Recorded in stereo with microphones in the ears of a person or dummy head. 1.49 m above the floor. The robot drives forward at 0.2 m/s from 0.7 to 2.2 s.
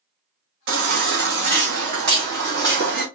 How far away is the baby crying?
About 1.6 m.